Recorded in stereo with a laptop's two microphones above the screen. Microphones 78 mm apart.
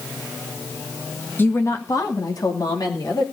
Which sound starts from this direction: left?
A woman speaking, at 1.4 s.